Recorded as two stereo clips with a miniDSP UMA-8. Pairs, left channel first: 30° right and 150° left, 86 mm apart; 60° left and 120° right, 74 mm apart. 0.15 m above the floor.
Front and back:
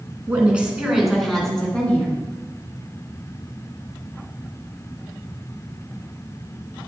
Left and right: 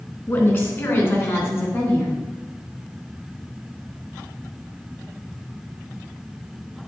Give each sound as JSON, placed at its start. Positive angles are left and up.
{"t": 0.3, "sound": "a woman speaking", "azimuth_deg": 90, "distance_m": 1.9}